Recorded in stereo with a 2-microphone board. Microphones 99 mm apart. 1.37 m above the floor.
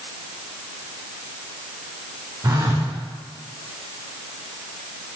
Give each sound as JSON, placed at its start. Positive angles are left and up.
{"t": 2.4, "sound": "a phone buzzing", "side_deg": -35, "distance_m": 0.7}